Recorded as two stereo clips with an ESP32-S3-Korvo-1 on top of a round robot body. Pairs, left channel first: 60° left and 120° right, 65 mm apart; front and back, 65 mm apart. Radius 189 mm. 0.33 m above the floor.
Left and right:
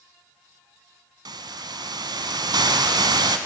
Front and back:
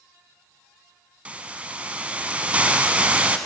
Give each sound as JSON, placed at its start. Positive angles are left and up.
{"t": 1.2, "sound": "a hiss", "azimuth_deg": -110, "distance_m": 0.7}